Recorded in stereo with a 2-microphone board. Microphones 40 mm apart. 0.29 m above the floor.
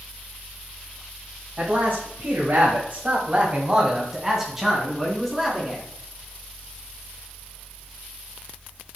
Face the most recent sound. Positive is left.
turn(degrees=0)  # may be behind; listen again after turning